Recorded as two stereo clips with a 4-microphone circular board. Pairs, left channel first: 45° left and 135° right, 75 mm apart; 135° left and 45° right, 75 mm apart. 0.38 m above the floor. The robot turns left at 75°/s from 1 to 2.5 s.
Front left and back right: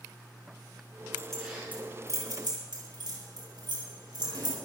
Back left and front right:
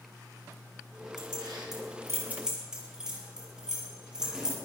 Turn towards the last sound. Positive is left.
turn(degrees=-125)